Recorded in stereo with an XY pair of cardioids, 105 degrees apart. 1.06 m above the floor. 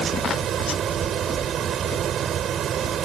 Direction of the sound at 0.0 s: 60° right.